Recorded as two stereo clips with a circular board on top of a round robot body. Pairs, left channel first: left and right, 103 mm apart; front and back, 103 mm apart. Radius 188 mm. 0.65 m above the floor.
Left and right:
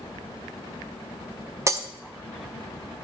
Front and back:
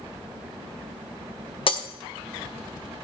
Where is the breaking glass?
30° right, 0.9 m.